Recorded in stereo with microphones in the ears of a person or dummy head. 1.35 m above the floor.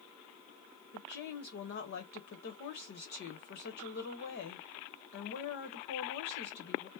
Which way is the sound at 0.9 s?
60° left (ahead or behind).